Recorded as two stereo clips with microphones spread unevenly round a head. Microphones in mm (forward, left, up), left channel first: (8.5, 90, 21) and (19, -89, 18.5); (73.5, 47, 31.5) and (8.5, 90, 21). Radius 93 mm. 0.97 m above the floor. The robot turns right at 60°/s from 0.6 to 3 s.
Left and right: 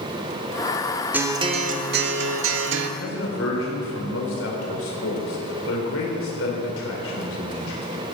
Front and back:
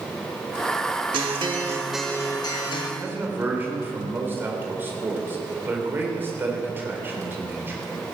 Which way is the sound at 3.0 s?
85° left.